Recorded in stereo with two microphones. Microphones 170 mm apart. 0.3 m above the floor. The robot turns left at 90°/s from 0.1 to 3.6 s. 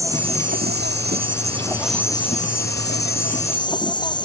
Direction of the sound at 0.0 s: 20° right.